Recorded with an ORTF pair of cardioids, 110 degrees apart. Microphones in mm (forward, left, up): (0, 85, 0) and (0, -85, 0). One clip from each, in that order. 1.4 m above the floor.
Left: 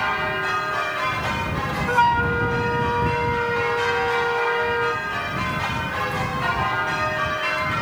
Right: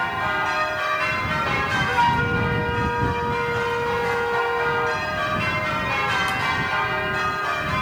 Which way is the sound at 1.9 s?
20° left.